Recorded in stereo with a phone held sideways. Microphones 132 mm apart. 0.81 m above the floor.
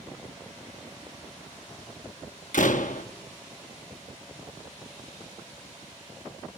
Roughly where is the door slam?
Left.